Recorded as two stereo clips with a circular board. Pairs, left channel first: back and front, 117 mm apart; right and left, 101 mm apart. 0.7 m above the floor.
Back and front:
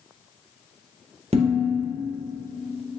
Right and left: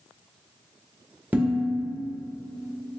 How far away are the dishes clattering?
About 0.6 m.